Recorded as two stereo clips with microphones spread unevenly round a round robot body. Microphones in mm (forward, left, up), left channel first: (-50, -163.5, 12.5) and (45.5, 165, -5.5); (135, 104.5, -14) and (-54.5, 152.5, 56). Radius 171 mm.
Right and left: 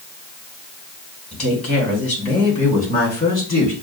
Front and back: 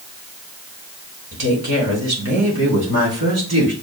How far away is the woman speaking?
About 3 m.